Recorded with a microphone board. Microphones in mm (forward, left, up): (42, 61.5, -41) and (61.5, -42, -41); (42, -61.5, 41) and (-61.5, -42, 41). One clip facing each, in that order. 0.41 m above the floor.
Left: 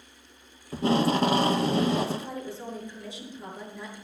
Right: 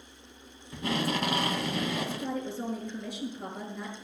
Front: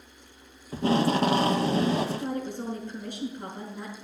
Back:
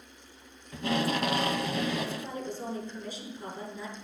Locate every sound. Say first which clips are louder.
0.7 s tape being pulled: left 7 dB, front 6 dB; 40° left, 0.6 m
2.1 s a woman speaking: even, front 5 dB; 50° right, 6 m